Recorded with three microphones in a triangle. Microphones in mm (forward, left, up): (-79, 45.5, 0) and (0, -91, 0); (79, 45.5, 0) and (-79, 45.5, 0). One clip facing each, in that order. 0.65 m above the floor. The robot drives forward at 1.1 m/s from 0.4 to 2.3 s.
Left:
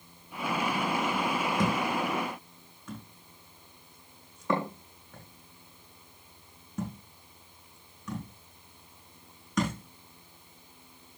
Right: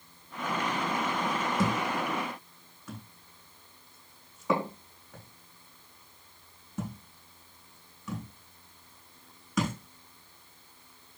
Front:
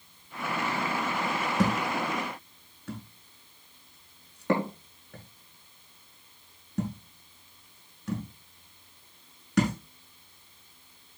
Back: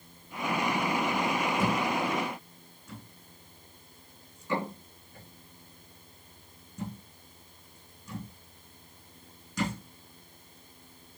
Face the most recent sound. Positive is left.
turn(degrees=25)